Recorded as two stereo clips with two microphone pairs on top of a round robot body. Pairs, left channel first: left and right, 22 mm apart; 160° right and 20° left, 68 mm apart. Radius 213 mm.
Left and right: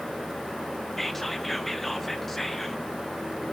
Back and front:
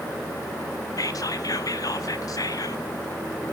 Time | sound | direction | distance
1.0 | whispering | 165° left | 1.0 m